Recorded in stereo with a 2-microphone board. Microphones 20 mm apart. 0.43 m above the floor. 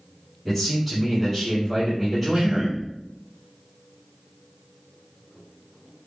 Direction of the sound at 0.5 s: 5° left (ahead or behind).